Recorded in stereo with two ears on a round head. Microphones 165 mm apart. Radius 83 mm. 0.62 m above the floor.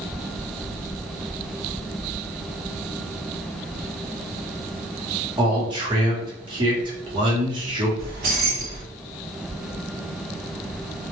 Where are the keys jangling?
55° right (ahead or behind), 1.1 m.